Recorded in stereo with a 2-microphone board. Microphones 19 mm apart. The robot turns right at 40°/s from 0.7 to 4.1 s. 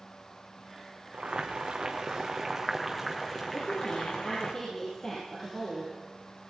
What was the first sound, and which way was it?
Boiling, 75° right.